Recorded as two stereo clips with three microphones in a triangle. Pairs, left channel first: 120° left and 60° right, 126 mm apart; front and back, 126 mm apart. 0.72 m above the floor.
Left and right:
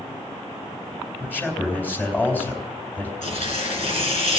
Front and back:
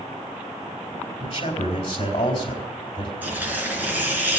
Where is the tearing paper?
105° left, 4 m.